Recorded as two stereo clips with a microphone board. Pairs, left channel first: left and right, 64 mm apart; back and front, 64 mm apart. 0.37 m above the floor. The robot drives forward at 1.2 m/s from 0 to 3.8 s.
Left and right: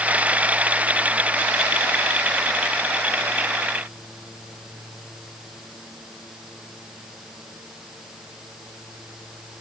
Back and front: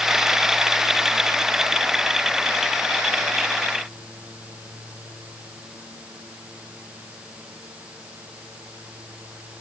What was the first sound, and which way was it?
Only background noise.